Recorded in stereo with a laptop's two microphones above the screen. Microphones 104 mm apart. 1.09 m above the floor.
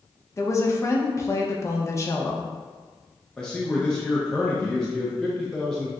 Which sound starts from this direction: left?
A woman speaking, at 0.4 s.